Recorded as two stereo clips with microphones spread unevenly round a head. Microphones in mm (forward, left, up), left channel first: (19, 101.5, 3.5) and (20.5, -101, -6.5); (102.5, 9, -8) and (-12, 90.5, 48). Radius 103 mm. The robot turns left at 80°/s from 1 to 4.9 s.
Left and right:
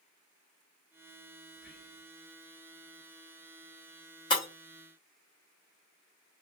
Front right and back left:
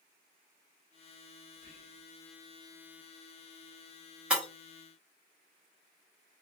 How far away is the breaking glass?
About 1.0 m.